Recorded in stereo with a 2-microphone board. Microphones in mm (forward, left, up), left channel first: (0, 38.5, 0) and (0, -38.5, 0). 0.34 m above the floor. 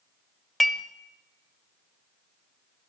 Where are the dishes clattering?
5° left (ahead or behind), 0.8 m.